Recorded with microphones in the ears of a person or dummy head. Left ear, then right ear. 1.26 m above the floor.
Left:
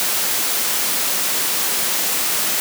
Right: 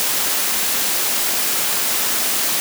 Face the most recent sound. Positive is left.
No sound to turn to.